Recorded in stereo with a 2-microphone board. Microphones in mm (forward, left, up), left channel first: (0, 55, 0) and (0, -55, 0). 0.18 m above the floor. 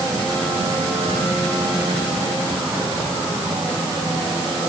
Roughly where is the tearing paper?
I don't hear tearing paper.